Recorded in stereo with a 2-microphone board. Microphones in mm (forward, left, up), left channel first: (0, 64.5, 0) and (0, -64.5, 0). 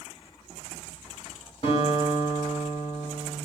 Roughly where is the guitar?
Left.